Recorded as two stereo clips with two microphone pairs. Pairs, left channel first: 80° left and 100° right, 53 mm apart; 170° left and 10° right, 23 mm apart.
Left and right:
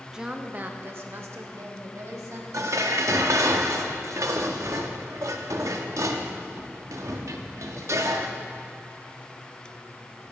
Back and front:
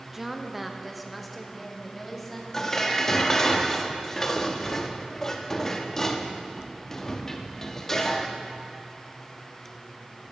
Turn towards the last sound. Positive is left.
turn(degrees=-120)